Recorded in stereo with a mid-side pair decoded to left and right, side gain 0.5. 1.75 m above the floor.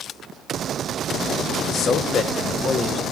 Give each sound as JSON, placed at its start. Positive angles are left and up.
{"t": 1.6, "sound": "a man speaking", "azimuth_deg": 60, "distance_m": 1.3}